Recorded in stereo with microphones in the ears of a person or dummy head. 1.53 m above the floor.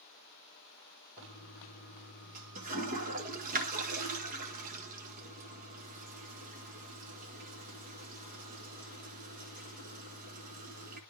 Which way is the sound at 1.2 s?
45° right (ahead or behind).